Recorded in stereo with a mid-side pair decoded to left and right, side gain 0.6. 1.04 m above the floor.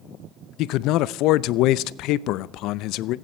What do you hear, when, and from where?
0.6 s a man speaking: 70° left, 0.6 m